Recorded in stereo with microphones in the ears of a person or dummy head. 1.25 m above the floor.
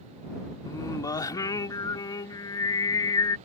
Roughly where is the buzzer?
I don't hear a buzzer.